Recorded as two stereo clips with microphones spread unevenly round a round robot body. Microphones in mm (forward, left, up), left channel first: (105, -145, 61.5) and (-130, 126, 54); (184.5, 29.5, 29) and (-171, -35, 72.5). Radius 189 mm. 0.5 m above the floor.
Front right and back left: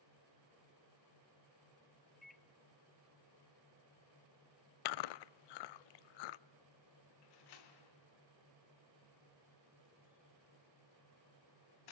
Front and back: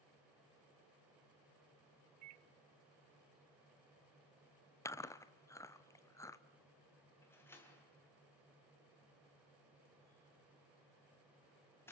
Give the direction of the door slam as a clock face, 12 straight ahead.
2 o'clock.